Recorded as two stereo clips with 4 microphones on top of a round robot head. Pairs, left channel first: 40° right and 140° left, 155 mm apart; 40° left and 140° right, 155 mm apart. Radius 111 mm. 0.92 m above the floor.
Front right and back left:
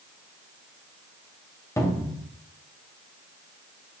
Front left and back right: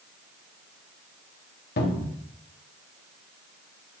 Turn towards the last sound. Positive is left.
turn(degrees=30)